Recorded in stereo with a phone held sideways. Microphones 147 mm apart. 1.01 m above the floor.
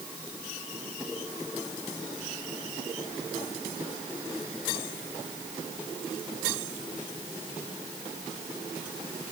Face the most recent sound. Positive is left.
No sound to turn to.